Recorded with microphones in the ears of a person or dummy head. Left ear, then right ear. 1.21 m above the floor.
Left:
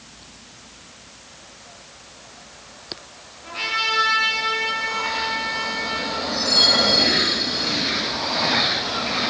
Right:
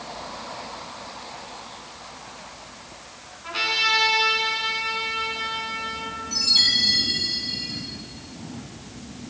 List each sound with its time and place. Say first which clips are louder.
3.4 s a trumpet: right 1 dB; 35° right (ahead or behind), 8 m
6.3 s a chime: left 2 dB; 60° right (ahead or behind), 7.5 m